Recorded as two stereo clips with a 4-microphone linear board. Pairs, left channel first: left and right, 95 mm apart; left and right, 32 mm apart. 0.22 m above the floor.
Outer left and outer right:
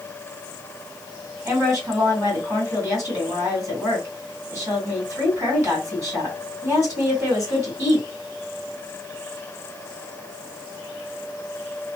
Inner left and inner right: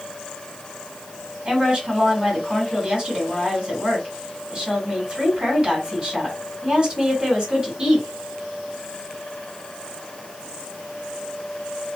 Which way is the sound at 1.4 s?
35° right (ahead or behind).